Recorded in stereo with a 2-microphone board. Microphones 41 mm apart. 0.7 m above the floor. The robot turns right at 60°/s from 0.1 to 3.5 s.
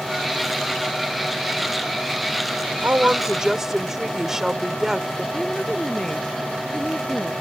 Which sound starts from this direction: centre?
A woman speaking, at 5.3 s.